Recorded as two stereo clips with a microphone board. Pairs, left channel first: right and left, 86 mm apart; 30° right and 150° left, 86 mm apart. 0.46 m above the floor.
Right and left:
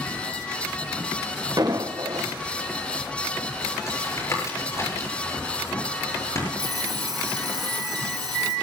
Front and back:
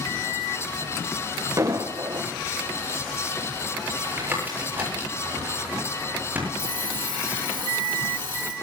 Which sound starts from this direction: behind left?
An alarm clock, at 6.6 s.